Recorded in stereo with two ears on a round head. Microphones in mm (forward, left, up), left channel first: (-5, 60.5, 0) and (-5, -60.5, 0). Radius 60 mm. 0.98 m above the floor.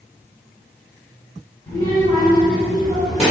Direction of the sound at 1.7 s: 20° left (ahead or behind).